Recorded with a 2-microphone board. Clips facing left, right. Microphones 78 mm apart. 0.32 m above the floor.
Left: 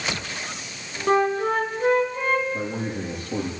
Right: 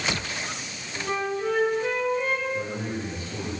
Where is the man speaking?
70° left (ahead or behind), 8.5 m.